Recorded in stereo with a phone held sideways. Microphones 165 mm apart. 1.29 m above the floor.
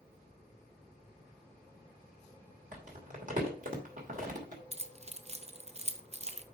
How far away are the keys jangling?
About 0.6 m.